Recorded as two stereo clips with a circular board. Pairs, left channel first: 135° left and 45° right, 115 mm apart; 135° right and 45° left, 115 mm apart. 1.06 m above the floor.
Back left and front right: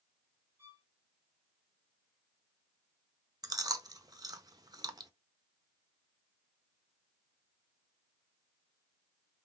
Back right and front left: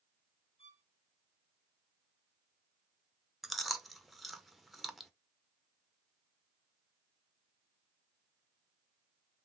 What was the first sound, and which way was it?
A violin, 115° right.